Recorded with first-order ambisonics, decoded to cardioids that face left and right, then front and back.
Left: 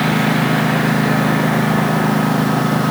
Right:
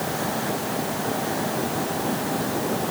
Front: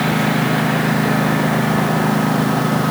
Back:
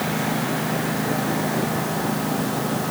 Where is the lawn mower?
60° left.